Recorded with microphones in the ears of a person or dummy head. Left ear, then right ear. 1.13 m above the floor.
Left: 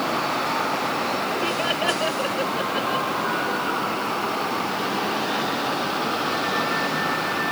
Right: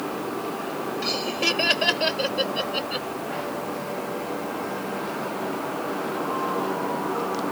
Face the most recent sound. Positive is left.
turn(degrees=-85)